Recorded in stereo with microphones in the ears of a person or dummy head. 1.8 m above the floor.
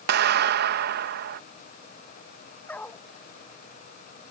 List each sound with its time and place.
0.1 s a clap: 55° right (ahead or behind)
2.7 s a dog barking: 10° left (ahead or behind)